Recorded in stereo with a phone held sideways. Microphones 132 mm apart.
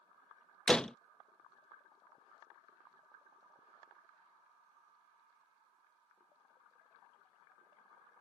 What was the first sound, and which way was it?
A door slam, 5° left (ahead or behind).